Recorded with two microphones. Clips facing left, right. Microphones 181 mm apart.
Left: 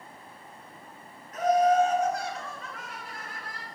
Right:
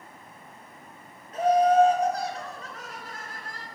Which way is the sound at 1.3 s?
30° right (ahead or behind).